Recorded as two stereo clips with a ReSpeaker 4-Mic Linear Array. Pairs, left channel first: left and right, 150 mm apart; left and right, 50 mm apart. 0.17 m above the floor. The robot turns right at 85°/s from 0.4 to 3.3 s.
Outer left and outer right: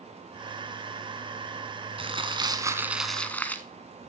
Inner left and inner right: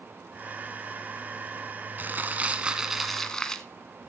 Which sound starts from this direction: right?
Crumpling, at 2.0 s.